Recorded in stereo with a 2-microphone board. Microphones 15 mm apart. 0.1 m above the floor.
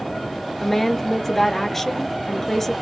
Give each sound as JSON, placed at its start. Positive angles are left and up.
{"t": 0.6, "sound": "a woman speaking", "side_deg": 15, "distance_m": 1.3}